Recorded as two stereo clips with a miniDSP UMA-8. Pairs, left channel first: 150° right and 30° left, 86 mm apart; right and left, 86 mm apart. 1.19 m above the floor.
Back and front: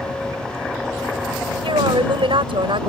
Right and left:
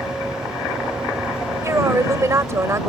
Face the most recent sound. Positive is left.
turn(degrees=35)